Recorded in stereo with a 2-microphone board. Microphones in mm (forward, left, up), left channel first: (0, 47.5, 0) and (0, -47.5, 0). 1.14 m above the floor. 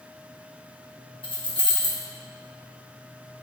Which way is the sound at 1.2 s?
65° left (ahead or behind).